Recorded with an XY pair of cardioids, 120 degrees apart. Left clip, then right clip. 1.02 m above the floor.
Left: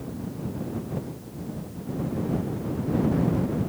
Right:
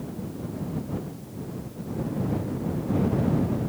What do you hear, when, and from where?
Only background noise.